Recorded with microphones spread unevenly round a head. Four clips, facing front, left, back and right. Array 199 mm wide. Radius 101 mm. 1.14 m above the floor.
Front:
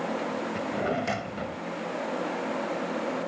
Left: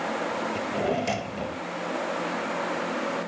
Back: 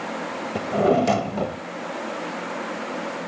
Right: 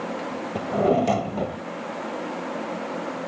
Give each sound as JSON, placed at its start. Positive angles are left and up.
{"t": 0.6, "sound": "a drawer", "azimuth_deg": -150}